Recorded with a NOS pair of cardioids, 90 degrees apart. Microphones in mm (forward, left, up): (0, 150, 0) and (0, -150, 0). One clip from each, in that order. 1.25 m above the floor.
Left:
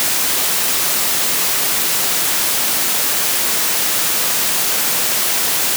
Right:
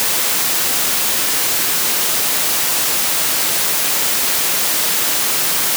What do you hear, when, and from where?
Only background noise.